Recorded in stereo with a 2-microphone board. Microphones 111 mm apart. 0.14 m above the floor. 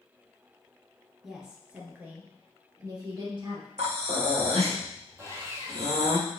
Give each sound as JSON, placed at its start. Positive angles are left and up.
{"t": 1.2, "sound": "a woman speaking", "side_deg": -5, "distance_m": 2.0}
{"t": 3.8, "sound": "breathing", "side_deg": -75, "distance_m": 2.5}
{"t": 5.2, "sound": "sawing", "side_deg": -25, "distance_m": 1.9}